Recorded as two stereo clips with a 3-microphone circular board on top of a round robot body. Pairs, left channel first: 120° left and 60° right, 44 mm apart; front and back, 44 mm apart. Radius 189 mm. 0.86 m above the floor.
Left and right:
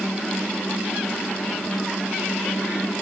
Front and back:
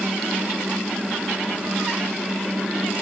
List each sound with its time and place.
Only background noise.